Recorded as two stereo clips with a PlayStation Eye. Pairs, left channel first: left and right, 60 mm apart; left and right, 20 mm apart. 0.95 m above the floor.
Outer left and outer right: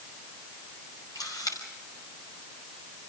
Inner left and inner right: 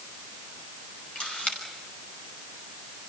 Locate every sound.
1.1 s a camera shutter: 85° left, 5.5 m